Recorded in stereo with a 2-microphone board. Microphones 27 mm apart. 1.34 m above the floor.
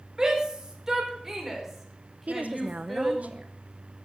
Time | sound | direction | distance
0.2 | a shout | 20° right (ahead or behind) | 5 m
2.3 | a woman speaking | 75° right (ahead or behind) | 0.7 m